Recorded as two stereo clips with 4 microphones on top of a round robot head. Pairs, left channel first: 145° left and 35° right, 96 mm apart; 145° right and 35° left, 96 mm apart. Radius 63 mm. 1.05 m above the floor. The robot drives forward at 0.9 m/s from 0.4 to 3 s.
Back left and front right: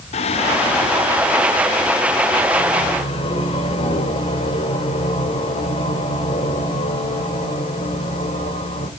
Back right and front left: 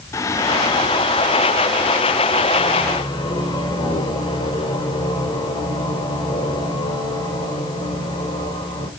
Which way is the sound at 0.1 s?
155° left.